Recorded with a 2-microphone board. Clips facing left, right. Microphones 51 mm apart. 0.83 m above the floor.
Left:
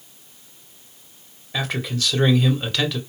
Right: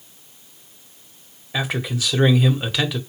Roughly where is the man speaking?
Centre.